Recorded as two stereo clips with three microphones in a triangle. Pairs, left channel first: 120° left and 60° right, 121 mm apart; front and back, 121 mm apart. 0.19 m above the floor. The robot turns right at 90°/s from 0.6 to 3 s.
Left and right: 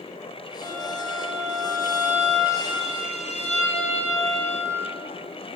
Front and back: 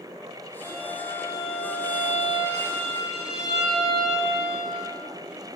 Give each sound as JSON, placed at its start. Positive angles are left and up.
{"t": 0.6, "sound": "a violin", "azimuth_deg": -120, "distance_m": 3.0}